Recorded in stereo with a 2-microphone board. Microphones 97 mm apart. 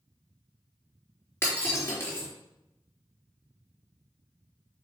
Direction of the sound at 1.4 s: 25° left (ahead or behind).